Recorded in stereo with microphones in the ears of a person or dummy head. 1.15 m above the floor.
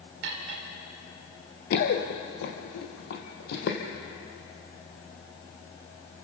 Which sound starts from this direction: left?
Running footsteps, at 1.7 s.